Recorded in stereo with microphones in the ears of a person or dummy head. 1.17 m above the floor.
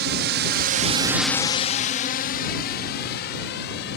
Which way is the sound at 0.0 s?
55° right (ahead or behind).